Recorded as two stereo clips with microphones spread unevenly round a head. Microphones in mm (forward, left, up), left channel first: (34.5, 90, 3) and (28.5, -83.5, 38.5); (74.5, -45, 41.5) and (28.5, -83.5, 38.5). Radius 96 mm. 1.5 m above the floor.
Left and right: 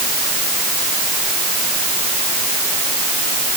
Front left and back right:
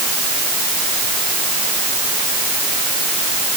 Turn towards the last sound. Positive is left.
No sound to turn to.